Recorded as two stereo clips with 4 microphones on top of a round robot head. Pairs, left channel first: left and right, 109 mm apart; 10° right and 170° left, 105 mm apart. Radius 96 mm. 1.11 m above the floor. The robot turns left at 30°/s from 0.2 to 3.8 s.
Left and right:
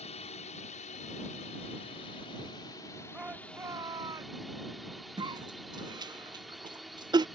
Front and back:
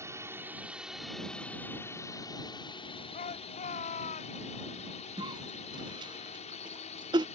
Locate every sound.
0.0 s a drone: 110° left; by 7.4 s straight ahead
3.1 s a shout: 5° right; by 4.4 s 25° right
5.2 s a cough: 140° right